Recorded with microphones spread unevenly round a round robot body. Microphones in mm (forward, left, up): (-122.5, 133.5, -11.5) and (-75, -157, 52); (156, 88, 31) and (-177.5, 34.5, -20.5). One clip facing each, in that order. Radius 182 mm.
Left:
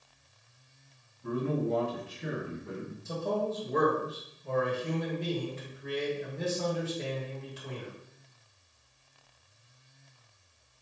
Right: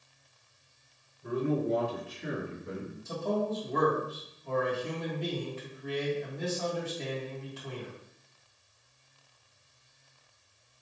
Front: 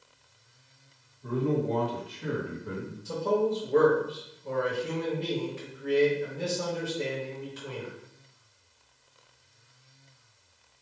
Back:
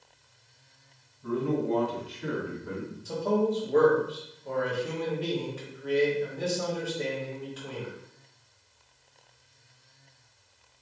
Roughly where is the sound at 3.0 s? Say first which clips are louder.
Right 1 dB, even; ahead left.